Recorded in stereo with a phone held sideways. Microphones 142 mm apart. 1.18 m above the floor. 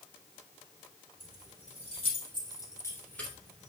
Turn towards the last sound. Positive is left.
turn(degrees=-5)  # may be behind; listen again after turning